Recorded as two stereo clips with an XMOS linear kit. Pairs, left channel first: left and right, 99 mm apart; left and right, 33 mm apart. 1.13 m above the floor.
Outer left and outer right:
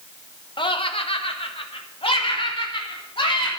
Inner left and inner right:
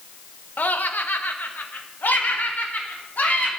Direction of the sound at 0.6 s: 60° left (ahead or behind).